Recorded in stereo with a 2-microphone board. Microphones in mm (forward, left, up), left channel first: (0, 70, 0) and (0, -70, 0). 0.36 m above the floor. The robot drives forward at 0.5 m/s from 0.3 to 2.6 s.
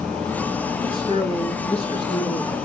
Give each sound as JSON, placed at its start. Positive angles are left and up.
{"t": 0.8, "sound": "a man speaking", "side_deg": 40, "distance_m": 3.5}